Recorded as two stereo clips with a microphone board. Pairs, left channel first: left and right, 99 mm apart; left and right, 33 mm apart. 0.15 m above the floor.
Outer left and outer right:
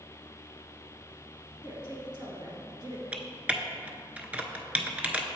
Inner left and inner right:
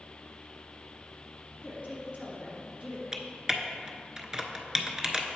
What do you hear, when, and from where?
1.6 s a woman speaking: 45° right (ahead or behind), 1.9 m
3.1 s typing on a keyboard: 15° right (ahead or behind), 0.5 m